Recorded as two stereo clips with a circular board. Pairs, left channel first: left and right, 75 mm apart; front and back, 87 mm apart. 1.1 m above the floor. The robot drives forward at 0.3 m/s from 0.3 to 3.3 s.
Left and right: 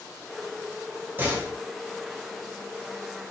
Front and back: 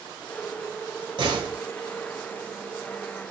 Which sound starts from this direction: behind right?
A door slam, at 1.2 s.